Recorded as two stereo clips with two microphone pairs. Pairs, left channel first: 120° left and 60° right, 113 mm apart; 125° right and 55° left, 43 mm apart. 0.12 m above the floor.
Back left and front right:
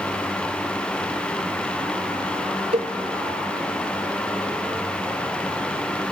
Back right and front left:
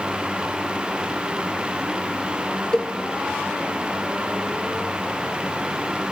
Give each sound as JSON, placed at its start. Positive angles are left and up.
{"t": 2.7, "sound": "a cowbell", "azimuth_deg": -55, "distance_m": 0.6}